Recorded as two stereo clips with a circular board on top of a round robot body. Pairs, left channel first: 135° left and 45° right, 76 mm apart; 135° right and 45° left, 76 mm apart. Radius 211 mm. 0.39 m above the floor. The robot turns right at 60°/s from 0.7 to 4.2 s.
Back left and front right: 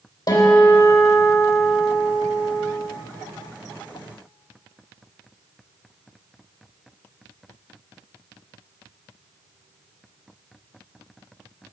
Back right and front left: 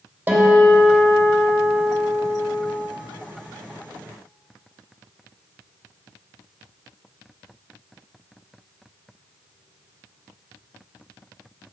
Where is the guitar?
110° left, 3 m; by 2.7 s 125° right, 3 m.